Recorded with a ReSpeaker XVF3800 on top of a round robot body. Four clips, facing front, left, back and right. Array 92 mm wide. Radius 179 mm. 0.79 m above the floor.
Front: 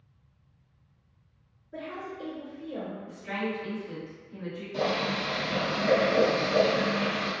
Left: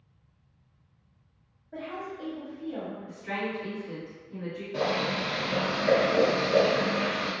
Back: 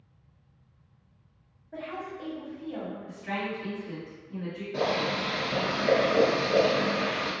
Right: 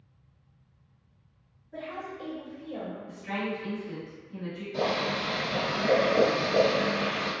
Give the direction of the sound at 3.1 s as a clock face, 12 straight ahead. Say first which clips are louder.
Right 1 dB, front 1 dB; 6 o'clock.